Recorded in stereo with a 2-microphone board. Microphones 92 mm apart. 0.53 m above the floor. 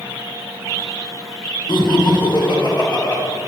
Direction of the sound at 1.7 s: 55° left (ahead or behind).